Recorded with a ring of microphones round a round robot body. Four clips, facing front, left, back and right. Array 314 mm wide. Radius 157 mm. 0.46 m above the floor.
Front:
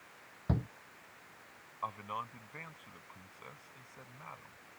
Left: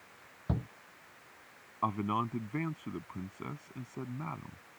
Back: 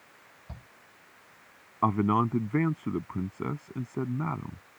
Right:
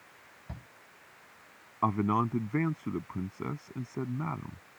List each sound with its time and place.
0.5 s a shout: 35° left
1.8 s a man speaking: 165° right